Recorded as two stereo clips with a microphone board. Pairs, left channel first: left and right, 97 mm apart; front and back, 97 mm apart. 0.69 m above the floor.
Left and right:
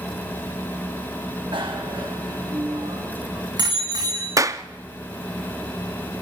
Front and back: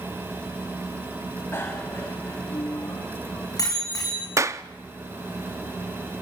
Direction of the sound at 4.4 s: 135° right.